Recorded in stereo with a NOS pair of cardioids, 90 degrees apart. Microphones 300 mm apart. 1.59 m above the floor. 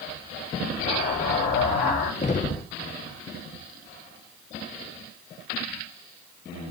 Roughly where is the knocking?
Ahead left.